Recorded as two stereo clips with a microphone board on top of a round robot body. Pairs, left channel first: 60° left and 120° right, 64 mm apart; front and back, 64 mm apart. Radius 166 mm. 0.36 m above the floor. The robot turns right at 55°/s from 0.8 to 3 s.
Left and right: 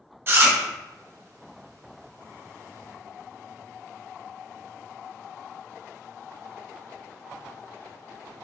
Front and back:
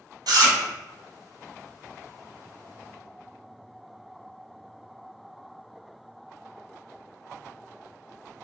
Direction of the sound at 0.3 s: 175° right.